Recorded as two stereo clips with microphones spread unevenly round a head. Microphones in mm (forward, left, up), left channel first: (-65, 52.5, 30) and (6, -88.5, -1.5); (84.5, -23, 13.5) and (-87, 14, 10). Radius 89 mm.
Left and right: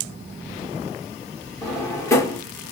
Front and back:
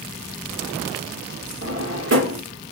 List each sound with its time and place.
1.6 s a drawer: 170° right, 1.9 m